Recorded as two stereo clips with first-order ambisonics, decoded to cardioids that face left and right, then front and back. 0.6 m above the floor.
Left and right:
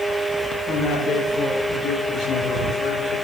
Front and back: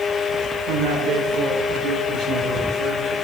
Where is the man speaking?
155° left, 6.5 m; by 3.1 s 130° left, 8.5 m.